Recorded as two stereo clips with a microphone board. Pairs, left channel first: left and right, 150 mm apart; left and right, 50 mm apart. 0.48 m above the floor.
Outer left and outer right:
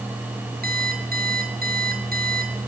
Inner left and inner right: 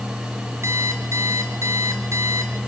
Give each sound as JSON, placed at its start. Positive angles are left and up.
{"t": 0.6, "sound": "an alarm clock", "side_deg": -85, "distance_m": 6.0}